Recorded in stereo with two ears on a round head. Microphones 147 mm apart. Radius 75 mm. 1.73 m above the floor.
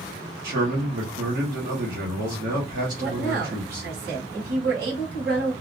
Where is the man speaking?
60° right (ahead or behind), 1.2 m.